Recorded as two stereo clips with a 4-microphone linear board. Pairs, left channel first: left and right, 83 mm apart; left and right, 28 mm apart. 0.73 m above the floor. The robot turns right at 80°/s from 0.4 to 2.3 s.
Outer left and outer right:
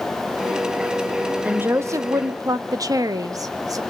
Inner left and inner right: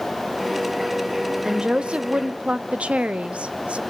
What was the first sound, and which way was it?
A woman speaking, 160° right.